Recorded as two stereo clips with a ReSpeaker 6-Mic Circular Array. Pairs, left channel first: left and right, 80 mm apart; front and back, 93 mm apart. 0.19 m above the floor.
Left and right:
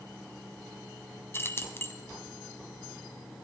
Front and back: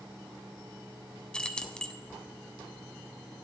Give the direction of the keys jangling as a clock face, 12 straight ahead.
10 o'clock.